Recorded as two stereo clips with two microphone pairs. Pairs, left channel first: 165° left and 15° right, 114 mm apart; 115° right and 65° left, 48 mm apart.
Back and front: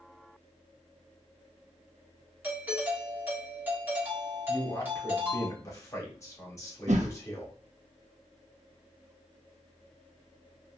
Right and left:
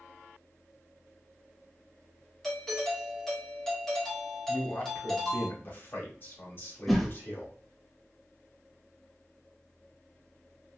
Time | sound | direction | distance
2.4 | a doorbell | 50° right | 1.2 m
4.5 | a man speaking | 140° right | 0.9 m
6.9 | a whoosh | 25° right | 0.6 m